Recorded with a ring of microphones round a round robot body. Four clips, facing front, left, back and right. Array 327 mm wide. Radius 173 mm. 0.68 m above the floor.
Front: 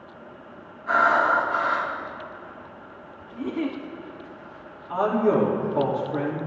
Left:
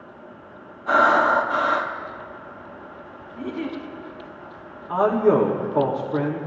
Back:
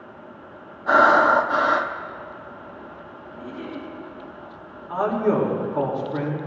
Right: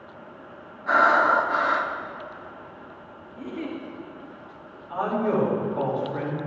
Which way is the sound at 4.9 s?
95° left.